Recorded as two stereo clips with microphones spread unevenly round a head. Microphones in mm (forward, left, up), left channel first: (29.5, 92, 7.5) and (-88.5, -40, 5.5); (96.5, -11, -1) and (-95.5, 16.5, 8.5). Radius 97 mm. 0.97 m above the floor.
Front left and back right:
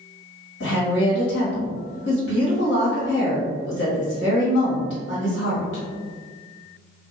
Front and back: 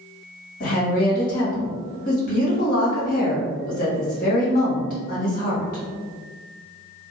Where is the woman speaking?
35° left, 1.7 m.